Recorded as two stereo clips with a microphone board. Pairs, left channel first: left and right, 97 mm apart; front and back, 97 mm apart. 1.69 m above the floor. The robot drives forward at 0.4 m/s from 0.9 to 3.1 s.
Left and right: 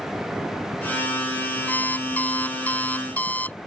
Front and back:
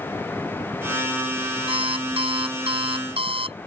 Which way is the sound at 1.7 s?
165° left.